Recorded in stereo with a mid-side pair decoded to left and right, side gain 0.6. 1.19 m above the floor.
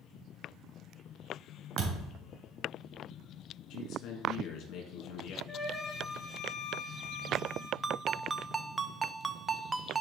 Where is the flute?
10° left, 2.5 m.